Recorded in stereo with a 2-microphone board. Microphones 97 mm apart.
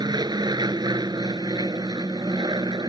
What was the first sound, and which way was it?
An aircraft, 45° right (ahead or behind).